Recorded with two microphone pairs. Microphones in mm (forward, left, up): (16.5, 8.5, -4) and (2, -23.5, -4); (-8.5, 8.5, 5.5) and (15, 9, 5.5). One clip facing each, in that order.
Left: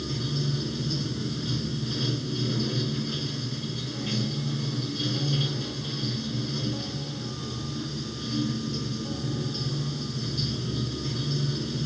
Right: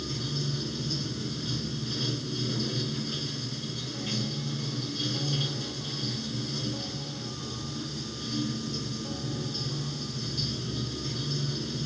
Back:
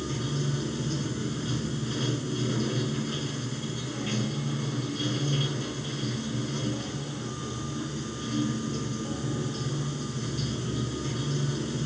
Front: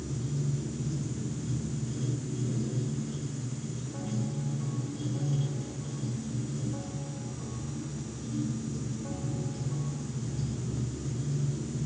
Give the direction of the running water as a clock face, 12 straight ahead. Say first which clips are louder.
Left 3 dB, back 4 dB; 7 o'clock.